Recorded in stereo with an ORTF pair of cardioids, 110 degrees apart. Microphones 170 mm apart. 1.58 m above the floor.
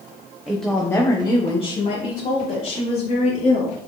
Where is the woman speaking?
5° right, 1.1 m; by 3.8 s 60° left, 3.5 m.